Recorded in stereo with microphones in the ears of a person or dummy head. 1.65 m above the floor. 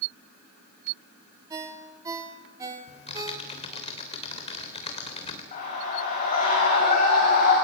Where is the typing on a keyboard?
25° left (ahead or behind), 3.5 m.